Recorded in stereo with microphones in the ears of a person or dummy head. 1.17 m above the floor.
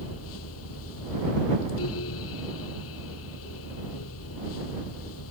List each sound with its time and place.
0.0 s a fan: 80° left